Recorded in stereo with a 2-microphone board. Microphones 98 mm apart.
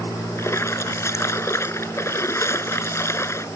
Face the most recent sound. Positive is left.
turn(degrees=30)  # may be behind; listen again after turning